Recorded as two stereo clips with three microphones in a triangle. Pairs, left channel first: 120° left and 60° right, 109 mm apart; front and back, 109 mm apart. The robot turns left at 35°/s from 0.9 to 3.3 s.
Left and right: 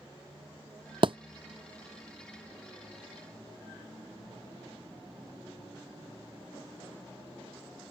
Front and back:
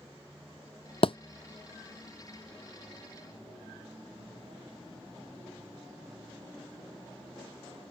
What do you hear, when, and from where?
1.0 s a thud: 25° right; by 1.2 s 30° right